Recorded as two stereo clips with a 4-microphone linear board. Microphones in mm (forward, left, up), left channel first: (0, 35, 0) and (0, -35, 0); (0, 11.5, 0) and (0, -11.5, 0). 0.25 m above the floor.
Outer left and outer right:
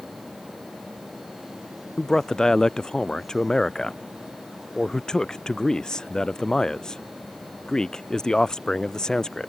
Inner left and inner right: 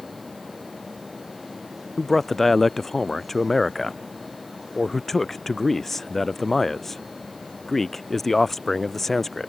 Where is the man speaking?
10° left (ahead or behind).